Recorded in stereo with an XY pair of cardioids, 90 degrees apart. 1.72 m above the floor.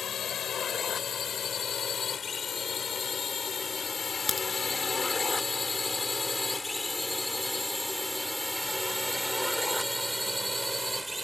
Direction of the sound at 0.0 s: 60° left.